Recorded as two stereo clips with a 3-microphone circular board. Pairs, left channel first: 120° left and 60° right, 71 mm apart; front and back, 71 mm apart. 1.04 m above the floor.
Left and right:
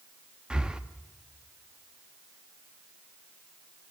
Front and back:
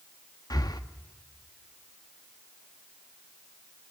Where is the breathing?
15° left, 0.9 m.